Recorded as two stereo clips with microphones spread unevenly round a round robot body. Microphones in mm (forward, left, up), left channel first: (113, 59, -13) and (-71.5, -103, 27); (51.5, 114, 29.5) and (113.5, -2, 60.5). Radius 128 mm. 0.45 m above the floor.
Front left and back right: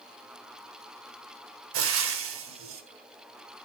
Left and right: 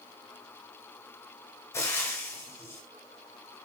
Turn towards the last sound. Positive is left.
turn(degrees=180)